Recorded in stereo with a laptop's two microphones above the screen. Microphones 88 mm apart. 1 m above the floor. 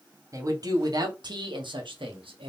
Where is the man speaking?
40° right (ahead or behind), 1.7 m; by 2.5 s 80° right, 1.4 m.